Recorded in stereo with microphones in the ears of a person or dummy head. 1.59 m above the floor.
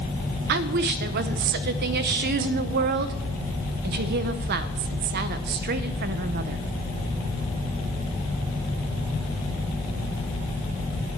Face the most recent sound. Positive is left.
turn(degrees=-45)  # may be behind; listen again after turning